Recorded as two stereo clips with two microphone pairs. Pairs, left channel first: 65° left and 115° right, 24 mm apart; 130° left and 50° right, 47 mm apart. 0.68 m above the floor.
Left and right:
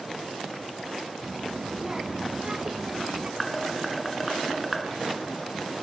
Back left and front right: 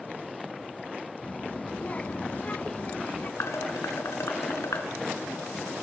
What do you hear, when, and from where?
1.2 s a child speaking: 170° right, 0.8 m
3.4 s dishes clattering: 155° left, 5.5 m